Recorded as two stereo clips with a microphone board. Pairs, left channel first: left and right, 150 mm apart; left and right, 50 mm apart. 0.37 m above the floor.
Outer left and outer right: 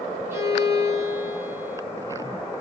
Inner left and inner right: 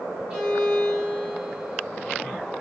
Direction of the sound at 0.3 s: 15° right (ahead or behind).